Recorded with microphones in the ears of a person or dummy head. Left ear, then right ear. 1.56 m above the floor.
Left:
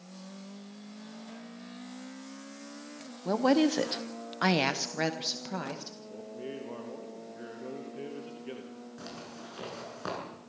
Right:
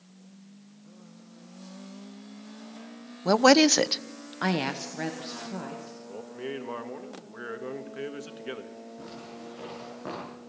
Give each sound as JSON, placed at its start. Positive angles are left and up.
{"t": 3.2, "sound": "a woman speaking", "side_deg": -60, "distance_m": 0.8}
{"t": 6.1, "sound": "a man speaking", "side_deg": -55, "distance_m": 1.7}
{"t": 9.0, "sound": "a zipper", "side_deg": 80, "distance_m": 8.0}